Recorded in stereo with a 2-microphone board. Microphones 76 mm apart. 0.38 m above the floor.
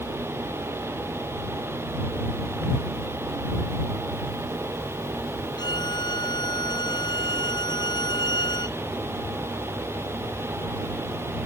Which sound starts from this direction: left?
A violin, at 5.6 s.